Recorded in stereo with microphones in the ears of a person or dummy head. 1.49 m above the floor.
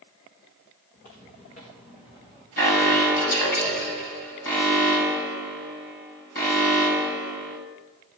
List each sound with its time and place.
0.9 s footsteps: 45° left (ahead or behind), 5 m; by 2.5 s 30° left (ahead or behind), 4.5 m
2.6 s an alarm: 50° left (ahead or behind), 6.5 m